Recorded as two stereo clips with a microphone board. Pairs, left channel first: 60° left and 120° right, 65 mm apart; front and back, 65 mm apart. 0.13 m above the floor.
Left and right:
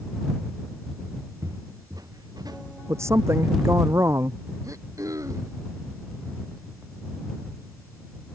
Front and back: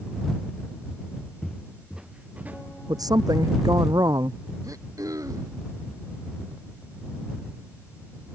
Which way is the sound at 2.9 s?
165° right.